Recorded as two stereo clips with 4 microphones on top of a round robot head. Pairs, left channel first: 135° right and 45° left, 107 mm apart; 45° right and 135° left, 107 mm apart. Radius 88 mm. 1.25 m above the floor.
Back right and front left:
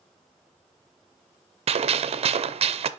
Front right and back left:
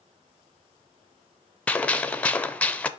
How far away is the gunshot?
About 0.6 m.